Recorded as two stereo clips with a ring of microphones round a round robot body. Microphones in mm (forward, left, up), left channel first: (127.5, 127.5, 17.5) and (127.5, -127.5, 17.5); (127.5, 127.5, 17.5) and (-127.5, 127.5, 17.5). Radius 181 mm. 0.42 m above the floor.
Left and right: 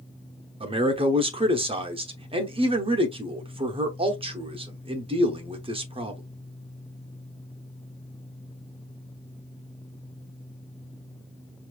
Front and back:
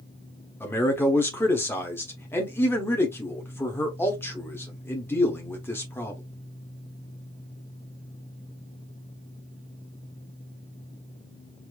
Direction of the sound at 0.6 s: 65° right.